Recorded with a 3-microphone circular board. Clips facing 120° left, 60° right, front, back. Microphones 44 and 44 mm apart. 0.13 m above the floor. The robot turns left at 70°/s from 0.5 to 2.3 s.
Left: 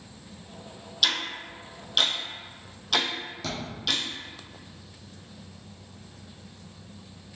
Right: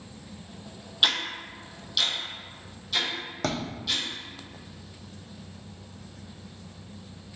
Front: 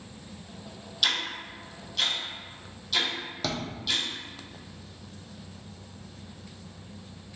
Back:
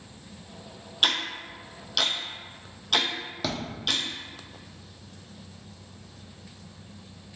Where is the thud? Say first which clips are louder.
Right 7 dB, back 1 dB; 95° right, 1.0 m.